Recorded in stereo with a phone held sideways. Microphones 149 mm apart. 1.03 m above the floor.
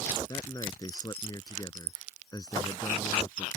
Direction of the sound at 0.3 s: 25° left (ahead or behind).